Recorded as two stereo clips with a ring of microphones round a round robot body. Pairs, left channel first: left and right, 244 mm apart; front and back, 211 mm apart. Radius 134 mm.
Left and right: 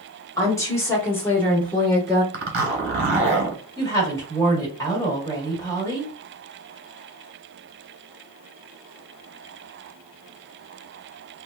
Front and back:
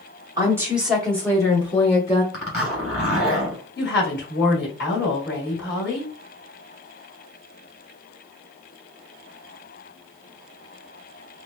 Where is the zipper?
100° right, 1.5 m.